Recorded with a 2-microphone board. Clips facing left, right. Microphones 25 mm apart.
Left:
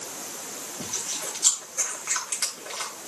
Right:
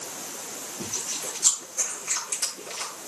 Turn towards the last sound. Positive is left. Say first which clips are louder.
# even
turn(degrees=65)  # may be behind; listen again after turning